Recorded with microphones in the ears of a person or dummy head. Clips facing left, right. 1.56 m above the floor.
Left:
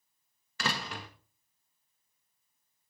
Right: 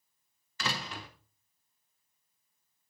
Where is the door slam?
50° left (ahead or behind), 1.5 m.